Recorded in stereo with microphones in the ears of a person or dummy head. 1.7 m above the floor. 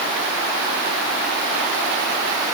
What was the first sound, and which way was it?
Only background noise.